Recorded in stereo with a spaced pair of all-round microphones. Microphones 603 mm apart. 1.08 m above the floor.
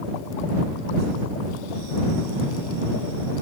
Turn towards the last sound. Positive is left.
No sound to turn to.